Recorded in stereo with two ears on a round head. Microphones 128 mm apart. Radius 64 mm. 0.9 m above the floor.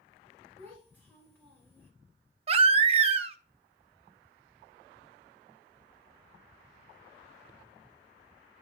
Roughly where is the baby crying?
Right.